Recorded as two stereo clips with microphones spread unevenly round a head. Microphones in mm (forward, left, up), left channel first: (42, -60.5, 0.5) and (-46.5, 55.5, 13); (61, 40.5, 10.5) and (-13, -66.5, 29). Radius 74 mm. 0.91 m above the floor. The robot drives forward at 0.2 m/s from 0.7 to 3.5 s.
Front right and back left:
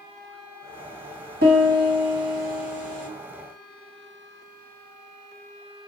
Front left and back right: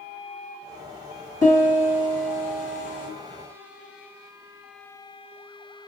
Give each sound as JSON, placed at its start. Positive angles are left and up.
{"t": 1.4, "sound": "a piano", "azimuth_deg": 120, "distance_m": 1.5}